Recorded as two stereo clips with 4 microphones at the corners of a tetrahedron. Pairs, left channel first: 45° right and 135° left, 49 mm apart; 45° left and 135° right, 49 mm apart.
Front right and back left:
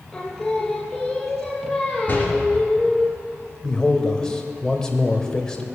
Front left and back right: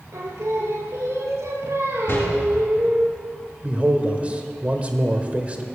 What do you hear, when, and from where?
0.1 s singing: 125° right, 2.5 m
2.1 s a door slam: 10° left, 3.5 m
3.6 s a man speaking: 105° right, 1.1 m